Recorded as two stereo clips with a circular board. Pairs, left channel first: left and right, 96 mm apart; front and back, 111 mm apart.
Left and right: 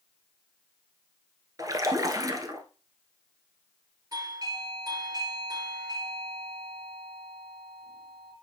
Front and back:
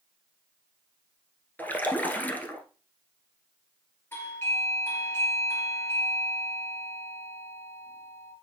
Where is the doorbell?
60° right, 3 m.